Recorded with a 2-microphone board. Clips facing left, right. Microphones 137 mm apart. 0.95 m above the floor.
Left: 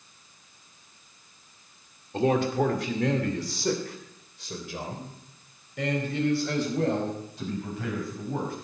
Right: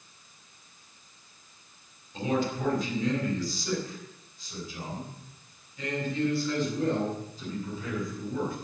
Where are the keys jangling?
No keys jangling in this recording.